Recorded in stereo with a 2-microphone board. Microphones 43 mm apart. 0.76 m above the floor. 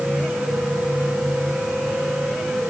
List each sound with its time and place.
Only background noise.